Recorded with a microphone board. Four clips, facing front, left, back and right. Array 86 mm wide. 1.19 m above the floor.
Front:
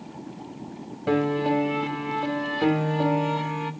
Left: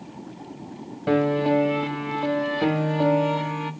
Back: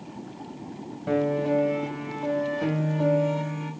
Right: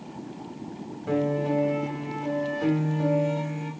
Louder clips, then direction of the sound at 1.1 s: Left 5 dB, front 1 dB; 60° left.